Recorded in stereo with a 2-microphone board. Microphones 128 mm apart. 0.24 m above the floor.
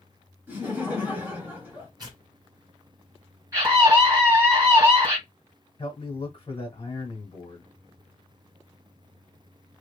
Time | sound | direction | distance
0.5 | laughter | 15° right (ahead or behind) | 1.5 m
2.0 | tearing paper | 35° right (ahead or behind) | 1.5 m
3.5 | a scream | 25° right (ahead or behind) | 2 m
5.8 | a man speaking | 30° left (ahead or behind) | 1.2 m